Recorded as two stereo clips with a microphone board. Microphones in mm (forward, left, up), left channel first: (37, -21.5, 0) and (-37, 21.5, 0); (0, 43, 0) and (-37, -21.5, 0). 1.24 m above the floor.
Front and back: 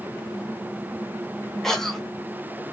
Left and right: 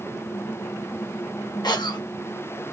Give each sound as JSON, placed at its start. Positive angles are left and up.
{"t": 1.6, "sound": "a cough", "azimuth_deg": 55, "distance_m": 1.1}